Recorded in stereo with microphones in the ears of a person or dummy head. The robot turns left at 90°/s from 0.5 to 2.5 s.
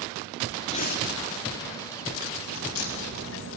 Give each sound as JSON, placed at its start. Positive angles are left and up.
{"t": 0.7, "sound": "breathing", "azimuth_deg": 150, "distance_m": 1.7}
{"t": 2.5, "sound": "a crack", "side_deg": 75, "distance_m": 5.5}